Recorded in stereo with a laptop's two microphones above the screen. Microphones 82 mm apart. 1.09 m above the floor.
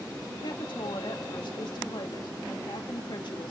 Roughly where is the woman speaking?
Left.